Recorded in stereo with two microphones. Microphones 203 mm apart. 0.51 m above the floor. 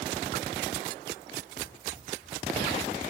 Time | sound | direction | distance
1.6 | running footsteps | 45° right (ahead or behind) | 4 m